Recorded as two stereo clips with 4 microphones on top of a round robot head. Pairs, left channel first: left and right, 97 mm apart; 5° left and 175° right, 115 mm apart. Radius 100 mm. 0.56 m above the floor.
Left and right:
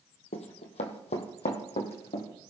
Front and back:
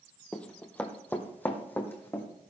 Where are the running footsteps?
85° left, 1.3 m; by 2.2 s 75° left, 2.5 m.